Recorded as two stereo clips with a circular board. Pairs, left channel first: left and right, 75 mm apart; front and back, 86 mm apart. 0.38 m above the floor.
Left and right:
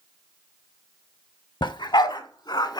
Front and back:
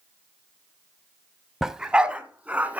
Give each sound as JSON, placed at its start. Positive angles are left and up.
{"t": 1.6, "sound": "a dog barking", "azimuth_deg": 95, "distance_m": 0.5}